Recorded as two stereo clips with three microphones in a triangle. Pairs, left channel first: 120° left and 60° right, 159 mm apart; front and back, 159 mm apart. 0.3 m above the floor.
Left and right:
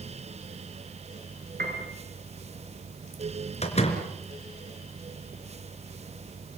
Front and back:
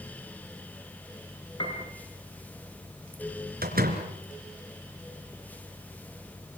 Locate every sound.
1.6 s a piano: 55° right, 5 m
3.6 s a door slam: 165° left, 3.5 m